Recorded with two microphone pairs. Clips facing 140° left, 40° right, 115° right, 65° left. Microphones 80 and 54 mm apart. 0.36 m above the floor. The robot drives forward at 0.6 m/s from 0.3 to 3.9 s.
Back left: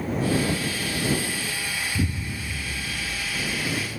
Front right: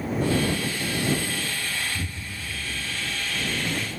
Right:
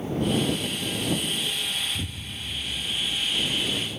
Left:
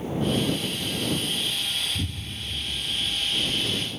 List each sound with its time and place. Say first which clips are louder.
1.9 s an explosion: back left 6 dB, left 1 dB; 155° left, 1.1 m; by 3.9 s 165° left, 2 m